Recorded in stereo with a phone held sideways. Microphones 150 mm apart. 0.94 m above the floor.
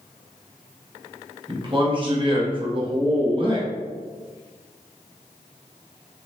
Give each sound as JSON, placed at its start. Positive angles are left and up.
{"t": 1.5, "sound": "a man speaking", "side_deg": -35, "distance_m": 1.0}